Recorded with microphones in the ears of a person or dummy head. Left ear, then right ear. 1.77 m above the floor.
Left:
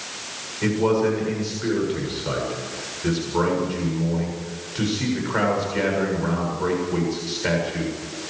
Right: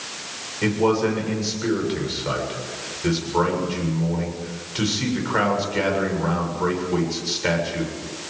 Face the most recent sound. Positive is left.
turn(degrees=-15)  # may be behind; listen again after turning